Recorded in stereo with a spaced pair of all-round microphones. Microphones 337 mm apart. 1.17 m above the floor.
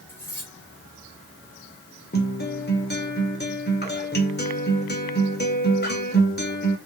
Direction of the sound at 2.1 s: 30° left (ahead or behind).